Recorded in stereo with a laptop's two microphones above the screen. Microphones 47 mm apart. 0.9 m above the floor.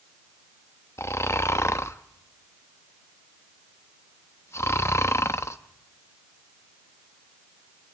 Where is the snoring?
85° left, 0.6 m.